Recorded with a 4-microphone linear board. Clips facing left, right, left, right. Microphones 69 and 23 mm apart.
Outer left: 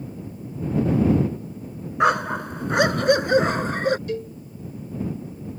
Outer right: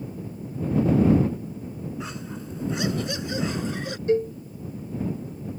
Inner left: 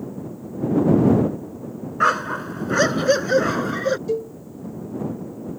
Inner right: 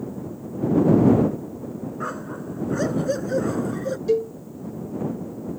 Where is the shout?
No shout in this recording.